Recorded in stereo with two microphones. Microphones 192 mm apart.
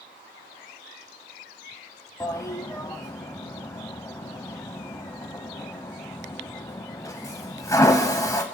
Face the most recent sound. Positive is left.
turn(degrees=20)  # may be behind; listen again after turning